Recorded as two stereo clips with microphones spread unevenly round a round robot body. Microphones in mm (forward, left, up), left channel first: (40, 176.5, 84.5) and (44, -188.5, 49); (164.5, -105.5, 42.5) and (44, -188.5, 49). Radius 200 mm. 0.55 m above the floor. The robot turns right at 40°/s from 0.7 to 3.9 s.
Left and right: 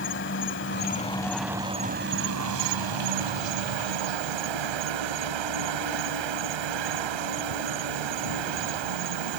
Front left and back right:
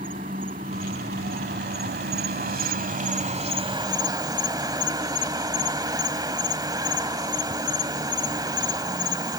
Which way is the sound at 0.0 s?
150° left.